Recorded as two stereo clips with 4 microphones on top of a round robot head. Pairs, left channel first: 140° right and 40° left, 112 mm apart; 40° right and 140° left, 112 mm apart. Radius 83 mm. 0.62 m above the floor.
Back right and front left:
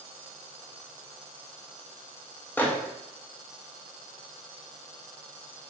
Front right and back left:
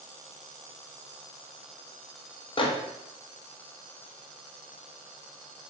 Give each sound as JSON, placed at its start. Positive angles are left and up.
{"t": 2.6, "sound": "a microwave", "azimuth_deg": -70, "distance_m": 0.5}